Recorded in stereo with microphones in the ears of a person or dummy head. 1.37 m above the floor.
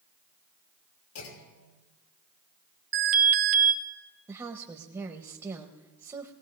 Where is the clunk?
80° left, 3 m.